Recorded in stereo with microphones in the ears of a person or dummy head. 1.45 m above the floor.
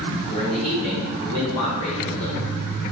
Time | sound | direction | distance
0.3 | a man speaking | 40° left (ahead or behind) | 0.8 m